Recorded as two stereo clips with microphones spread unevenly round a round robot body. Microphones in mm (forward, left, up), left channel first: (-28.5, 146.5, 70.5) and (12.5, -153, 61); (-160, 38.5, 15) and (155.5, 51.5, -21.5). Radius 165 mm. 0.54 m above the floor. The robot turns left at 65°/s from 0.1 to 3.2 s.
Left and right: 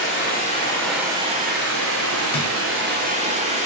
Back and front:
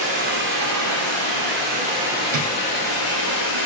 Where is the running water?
60° left, 1.3 m; by 3.7 s 145° right, 1.3 m.